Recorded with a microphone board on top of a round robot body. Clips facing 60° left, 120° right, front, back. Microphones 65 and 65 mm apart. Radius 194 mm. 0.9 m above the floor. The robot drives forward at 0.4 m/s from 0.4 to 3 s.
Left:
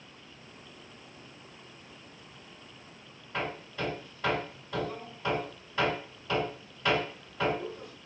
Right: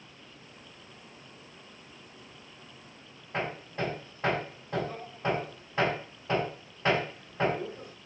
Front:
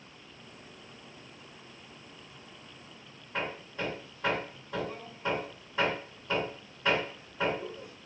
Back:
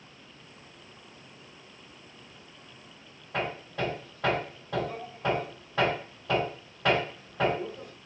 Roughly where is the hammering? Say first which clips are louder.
Right 2 dB, back 4 dB; behind.